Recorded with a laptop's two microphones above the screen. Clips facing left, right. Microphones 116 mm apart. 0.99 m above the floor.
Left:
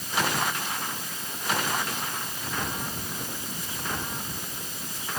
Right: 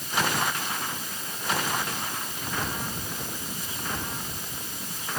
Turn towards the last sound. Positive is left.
No sound to turn to.